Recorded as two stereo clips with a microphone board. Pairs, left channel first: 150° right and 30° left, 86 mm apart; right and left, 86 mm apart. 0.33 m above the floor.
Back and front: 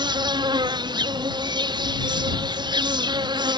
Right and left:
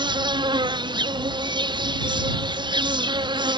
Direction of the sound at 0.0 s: 60° left.